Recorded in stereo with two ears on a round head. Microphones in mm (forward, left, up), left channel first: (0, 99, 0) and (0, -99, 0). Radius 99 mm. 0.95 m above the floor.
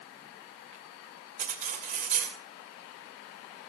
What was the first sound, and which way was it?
Cutlery clinking, 40° right (ahead or behind).